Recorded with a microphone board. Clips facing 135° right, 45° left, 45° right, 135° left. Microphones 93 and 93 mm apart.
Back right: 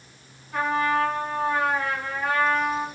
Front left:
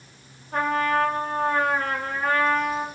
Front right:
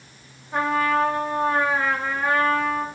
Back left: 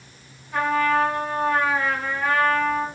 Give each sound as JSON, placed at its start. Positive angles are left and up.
{"t": 0.5, "sound": "a trumpet", "azimuth_deg": 10, "distance_m": 0.9}